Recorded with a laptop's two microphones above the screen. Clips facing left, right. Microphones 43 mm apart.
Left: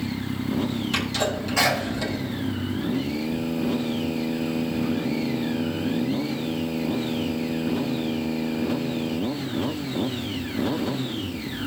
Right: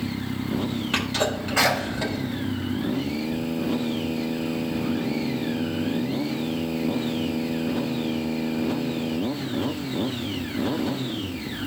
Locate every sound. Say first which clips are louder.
0.9 s a sneeze: right 3 dB; 25° right (ahead or behind), 6 m